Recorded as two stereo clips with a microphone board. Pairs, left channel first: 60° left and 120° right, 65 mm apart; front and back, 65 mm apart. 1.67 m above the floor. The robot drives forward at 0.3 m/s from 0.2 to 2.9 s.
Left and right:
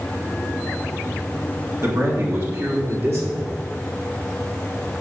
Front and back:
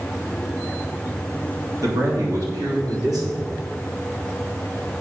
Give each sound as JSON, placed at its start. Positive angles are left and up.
{"t": 1.8, "sound": "a man speaking", "azimuth_deg": -160, "distance_m": 3.0}